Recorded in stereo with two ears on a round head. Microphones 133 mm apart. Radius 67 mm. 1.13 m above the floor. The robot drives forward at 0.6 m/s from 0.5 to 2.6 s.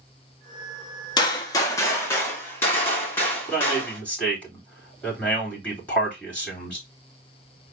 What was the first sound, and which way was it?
A gunshot, 30° left (ahead or behind).